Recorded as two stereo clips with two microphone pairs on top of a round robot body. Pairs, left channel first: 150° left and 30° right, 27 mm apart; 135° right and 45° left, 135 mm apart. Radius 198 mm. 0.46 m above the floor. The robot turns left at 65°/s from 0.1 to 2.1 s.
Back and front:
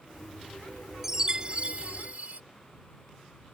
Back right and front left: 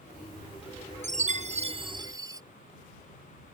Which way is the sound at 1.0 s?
50° left.